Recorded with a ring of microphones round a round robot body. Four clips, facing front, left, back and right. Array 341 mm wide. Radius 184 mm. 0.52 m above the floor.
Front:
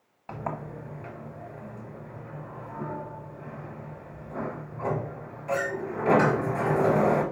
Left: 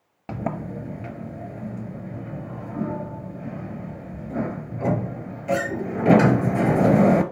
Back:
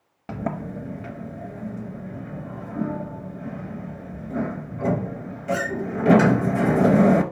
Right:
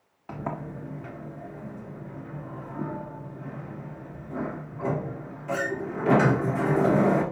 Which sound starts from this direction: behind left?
A sliding door, at 0.3 s.